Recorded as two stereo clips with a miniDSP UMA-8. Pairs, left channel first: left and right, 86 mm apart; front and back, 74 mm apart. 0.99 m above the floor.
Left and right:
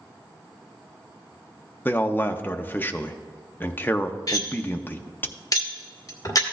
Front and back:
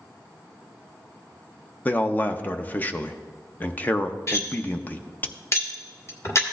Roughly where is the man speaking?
Ahead left.